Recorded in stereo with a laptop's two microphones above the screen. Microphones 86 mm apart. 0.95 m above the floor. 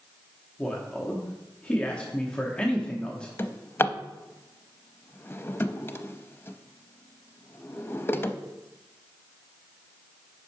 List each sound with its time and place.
0.6 s a man speaking: 10° left (ahead or behind), 0.8 m
3.4 s a drawer: 25° left (ahead or behind), 0.5 m